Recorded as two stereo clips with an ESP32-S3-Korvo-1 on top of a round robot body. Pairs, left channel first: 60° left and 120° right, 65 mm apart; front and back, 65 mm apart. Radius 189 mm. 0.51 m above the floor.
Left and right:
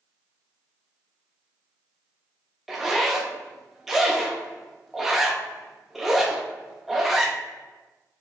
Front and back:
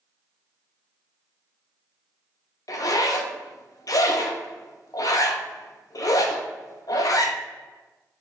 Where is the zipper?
35° right, 0.5 m.